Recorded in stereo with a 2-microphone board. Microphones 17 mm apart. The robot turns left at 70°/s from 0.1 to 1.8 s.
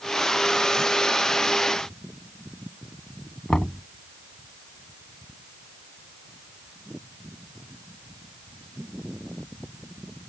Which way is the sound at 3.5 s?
60° left (ahead or behind).